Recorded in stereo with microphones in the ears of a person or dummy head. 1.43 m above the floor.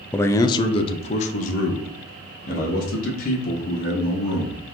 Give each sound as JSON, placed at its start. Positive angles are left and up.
{"t": 0.1, "sound": "a man speaking", "side_deg": 10, "distance_m": 0.6}